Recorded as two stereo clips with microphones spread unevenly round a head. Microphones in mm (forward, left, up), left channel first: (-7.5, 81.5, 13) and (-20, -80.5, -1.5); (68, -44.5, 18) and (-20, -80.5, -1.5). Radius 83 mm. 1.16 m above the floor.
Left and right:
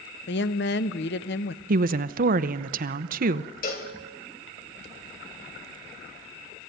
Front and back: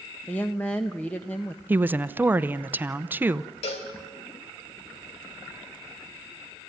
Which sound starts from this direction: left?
A woman speaking, at 0.3 s.